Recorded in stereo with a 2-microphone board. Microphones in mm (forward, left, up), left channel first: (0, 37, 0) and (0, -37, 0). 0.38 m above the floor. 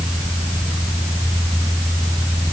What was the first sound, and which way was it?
Only background noise.